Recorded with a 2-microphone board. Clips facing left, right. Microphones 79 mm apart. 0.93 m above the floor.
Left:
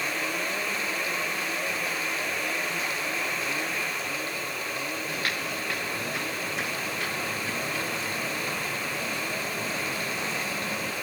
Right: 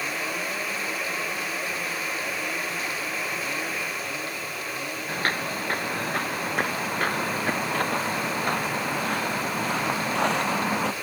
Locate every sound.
5.1 s footsteps: 40° right (ahead or behind); by 10.9 s 80° right